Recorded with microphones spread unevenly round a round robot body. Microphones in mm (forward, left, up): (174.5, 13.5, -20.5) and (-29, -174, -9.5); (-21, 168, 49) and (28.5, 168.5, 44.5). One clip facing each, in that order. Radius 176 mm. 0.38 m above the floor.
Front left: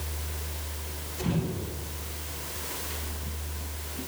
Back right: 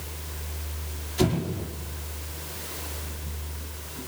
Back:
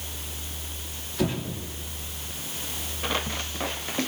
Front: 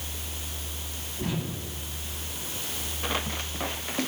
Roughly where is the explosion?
Behind right.